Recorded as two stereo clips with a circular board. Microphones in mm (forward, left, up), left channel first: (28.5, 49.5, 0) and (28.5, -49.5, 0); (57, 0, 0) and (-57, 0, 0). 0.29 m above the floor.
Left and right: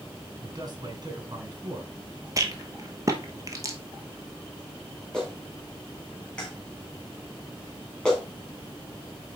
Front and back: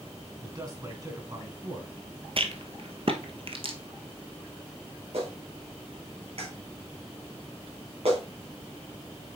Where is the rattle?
145° right, 1.1 m.